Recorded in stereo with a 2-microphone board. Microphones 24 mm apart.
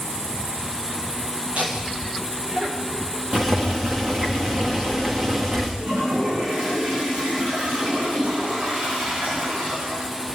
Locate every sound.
1.6 s laughter: 80° right, 8.5 m; by 3.2 s 75° right (ahead or behind), 8.5 m
3.3 s boiling: 30° right (ahead or behind), 4 m
5.8 s a toilet flushing: 80° right, 8 m